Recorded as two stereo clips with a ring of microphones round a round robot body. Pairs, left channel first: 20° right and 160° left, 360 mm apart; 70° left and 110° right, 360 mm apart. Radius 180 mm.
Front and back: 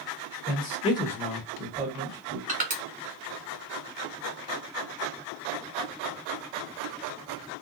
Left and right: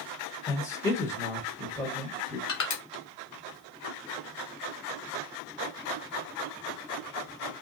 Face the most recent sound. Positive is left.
turn(degrees=100)